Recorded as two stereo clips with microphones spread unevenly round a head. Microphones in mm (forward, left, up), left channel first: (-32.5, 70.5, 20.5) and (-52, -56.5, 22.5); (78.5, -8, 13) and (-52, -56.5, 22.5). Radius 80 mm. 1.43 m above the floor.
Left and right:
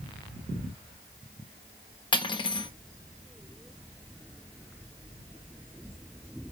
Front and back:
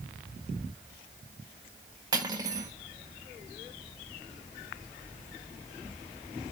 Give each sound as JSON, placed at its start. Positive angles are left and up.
{"t": 2.1, "sound": "cutlery clinking", "azimuth_deg": 130, "distance_m": 1.3}